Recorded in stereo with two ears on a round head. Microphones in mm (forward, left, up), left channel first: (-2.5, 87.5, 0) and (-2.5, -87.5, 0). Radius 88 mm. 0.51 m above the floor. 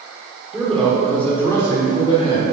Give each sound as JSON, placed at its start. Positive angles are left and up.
{"t": 0.5, "sound": "a man speaking", "side_deg": -5, "distance_m": 1.7}